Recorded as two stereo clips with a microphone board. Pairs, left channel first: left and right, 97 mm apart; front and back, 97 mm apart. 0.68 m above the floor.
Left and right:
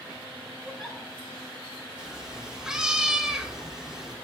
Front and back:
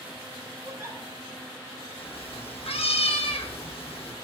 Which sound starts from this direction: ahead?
A cat meowing, at 2.0 s.